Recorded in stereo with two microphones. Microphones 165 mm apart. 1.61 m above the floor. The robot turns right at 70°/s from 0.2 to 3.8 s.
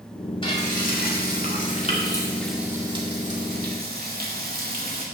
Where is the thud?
No thud in this recording.